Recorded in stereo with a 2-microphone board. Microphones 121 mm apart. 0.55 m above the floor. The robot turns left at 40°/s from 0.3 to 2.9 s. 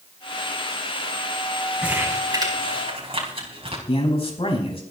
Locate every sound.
1.8 s crumpling: 10° right (ahead or behind), 4.5 m; by 3.8 s 50° right (ahead or behind), 4.5 m
3.9 s a man speaking: 50° left (ahead or behind), 5 m